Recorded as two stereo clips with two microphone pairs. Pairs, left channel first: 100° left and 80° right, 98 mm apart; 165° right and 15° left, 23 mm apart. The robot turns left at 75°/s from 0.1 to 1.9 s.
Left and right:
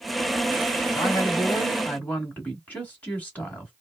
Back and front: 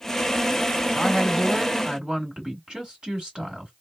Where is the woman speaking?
110° left, 1.8 m; by 3.7 s 40° left, 1.8 m.